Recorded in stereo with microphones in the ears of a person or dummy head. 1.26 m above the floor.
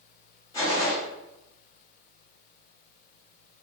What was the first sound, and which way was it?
A gunshot, 10° left (ahead or behind).